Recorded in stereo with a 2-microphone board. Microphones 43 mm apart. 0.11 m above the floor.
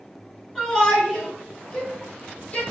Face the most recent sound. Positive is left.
turn(degrees=30)  # may be behind; listen again after turning